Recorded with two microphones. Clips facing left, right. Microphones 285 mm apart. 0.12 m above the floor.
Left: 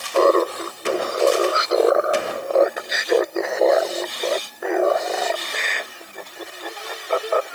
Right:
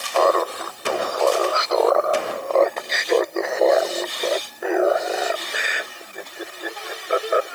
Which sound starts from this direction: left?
Laughter, at 0.1 s.